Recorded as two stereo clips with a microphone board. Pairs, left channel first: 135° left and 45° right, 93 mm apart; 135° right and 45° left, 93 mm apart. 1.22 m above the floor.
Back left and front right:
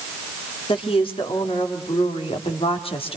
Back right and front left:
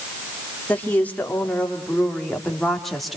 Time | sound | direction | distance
0.7 | a woman speaking | 155° left | 4 m